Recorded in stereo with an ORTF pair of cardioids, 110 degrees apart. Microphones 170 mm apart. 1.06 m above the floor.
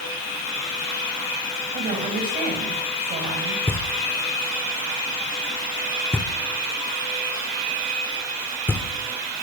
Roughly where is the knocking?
Ahead.